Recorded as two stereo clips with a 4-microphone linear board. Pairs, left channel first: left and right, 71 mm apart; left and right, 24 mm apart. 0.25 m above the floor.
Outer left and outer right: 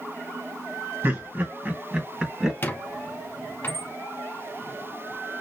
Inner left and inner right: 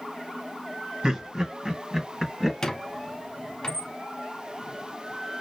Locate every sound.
1.0 s laughter: 35° right (ahead or behind), 2 m; by 2.5 s 10° right (ahead or behind), 2.5 m
2.6 s a squeak: 30° left (ahead or behind), 0.9 m